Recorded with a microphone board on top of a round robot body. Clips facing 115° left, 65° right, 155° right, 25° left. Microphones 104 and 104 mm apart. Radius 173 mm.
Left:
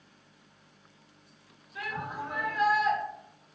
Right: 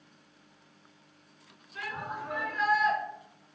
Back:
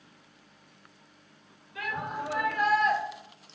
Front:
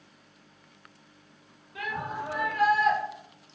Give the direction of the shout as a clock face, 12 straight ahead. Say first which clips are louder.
Left 1 dB, even; 11 o'clock.